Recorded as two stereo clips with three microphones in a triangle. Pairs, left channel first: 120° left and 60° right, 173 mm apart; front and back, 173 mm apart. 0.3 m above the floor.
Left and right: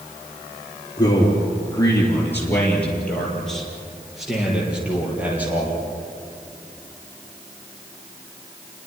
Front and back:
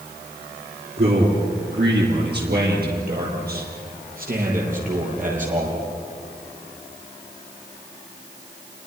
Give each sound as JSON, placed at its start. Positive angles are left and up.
{"t": 1.0, "sound": "a man speaking", "azimuth_deg": -175, "distance_m": 6.0}